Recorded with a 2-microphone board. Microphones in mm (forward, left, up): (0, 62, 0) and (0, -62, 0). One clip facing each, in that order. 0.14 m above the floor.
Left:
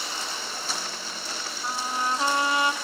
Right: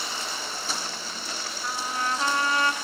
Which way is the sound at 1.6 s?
20° left (ahead or behind).